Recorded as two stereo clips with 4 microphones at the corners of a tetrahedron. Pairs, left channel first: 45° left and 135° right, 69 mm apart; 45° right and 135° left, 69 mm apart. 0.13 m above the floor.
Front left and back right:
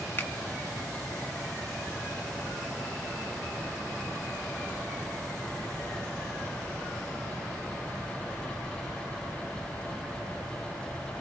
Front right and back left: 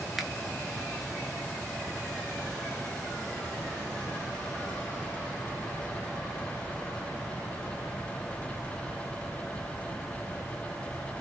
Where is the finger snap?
50° left, 0.9 m.